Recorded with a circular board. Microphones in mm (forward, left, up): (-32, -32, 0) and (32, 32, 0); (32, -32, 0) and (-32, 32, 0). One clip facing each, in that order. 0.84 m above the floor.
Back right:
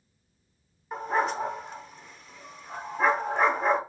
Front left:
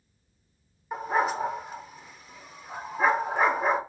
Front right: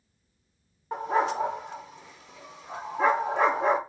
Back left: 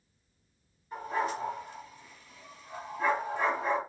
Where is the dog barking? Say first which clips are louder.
Front left 1 dB, front right 6 dB; 40° right, 0.9 m.